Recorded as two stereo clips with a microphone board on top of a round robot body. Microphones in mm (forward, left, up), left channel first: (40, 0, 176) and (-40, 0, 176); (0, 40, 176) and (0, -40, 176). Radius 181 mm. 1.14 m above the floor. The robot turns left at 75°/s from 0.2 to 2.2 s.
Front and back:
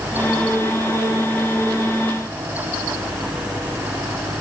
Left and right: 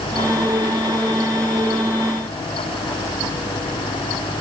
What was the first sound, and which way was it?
Only background noise.